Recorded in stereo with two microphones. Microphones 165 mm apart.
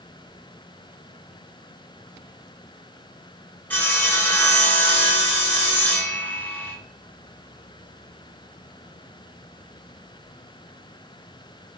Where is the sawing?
10° left (ahead or behind), 0.7 m.